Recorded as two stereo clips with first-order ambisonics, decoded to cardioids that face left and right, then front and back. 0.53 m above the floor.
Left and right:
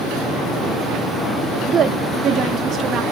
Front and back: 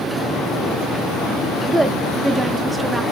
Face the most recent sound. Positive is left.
turn(degrees=-105)